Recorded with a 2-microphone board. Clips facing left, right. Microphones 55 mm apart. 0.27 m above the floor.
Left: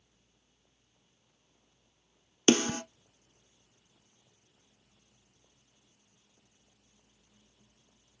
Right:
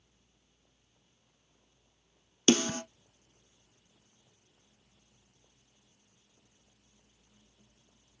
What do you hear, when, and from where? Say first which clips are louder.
2.5 s a snare drum: left 1 dB; 35° left (ahead or behind), 1.0 m